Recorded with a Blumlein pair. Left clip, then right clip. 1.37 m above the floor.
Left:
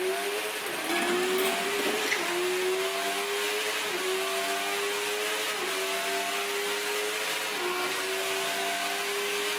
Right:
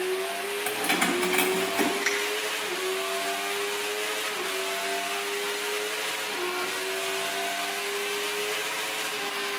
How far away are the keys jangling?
About 2 m.